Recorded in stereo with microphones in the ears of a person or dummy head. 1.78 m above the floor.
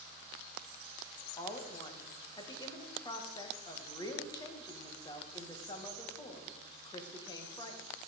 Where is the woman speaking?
20° left (ahead or behind), 1.7 m.